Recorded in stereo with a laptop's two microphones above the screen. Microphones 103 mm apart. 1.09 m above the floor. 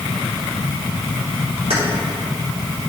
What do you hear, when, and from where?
1.7 s keys jangling: 85° right, 2.5 m